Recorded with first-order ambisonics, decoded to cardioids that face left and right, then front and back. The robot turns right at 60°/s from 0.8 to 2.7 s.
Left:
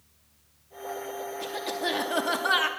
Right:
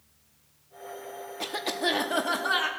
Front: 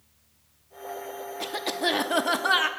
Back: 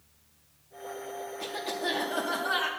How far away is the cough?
About 0.6 m.